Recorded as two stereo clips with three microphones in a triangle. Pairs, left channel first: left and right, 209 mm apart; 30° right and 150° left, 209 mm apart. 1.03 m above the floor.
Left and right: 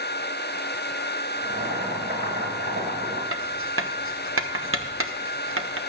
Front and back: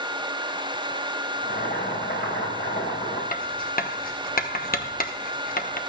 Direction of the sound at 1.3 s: 60° right.